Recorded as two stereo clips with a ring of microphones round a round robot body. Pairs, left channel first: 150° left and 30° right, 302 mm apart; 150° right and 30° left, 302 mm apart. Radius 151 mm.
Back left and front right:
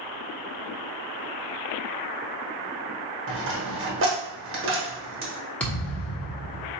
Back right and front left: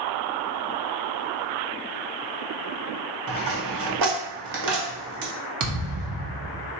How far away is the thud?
About 1.0 m.